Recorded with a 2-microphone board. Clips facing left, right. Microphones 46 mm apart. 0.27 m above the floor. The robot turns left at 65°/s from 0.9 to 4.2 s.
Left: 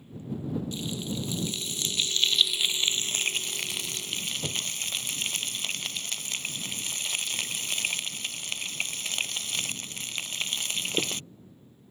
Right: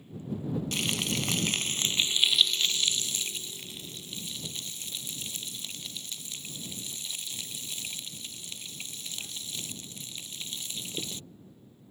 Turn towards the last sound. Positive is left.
turn(degrees=65)